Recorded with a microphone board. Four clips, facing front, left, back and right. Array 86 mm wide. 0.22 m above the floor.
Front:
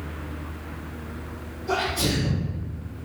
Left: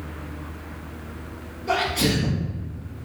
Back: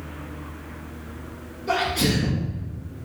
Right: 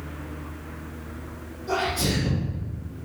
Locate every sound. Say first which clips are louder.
1.7 s a sneeze: left 3 dB, back 2 dB; 150° left, 3 m